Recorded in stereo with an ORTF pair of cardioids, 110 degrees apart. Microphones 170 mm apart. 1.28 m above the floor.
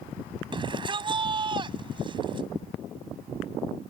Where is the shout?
30° right.